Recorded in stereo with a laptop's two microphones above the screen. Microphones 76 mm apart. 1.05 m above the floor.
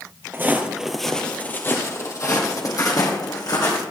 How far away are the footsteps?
About 1.2 m.